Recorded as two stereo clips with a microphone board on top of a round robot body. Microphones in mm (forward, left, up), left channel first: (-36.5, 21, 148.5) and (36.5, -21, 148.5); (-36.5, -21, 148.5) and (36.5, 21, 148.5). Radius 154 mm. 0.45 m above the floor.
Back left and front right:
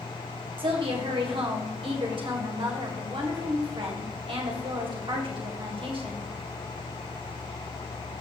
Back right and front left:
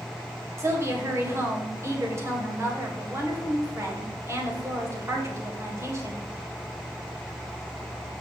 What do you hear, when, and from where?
0.6 s a woman speaking: 25° right, 2.5 m